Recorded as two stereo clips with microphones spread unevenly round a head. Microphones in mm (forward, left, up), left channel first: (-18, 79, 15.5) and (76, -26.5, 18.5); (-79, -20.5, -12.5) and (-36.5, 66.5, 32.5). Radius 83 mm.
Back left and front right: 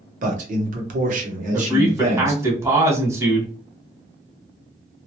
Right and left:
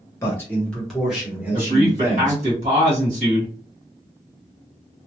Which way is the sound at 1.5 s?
20° left.